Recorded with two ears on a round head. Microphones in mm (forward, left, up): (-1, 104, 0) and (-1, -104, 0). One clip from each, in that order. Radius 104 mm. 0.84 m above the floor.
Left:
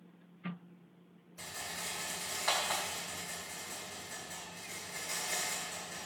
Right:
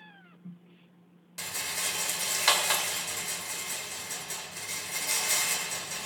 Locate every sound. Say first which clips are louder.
1.4 s a rattle: right 8 dB; 85° right, 1.7 m